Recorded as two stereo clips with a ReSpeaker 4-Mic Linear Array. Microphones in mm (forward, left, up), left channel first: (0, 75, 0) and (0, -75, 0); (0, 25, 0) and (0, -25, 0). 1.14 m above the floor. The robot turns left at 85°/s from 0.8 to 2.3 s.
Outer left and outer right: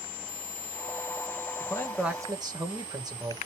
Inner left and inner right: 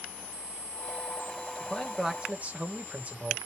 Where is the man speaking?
35° left, 1.0 m; by 3.4 s 25° right, 1.0 m.